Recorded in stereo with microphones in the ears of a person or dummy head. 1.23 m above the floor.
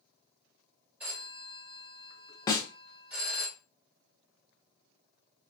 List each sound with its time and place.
1.0 s a phone ringing: 5° right (ahead or behind), 1.0 m
2.5 s a snare drum: 25° left (ahead or behind), 0.5 m